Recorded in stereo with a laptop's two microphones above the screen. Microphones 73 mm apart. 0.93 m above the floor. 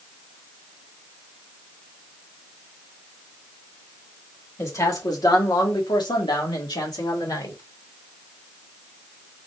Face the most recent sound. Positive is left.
turn(degrees=65)  # may be behind; listen again after turning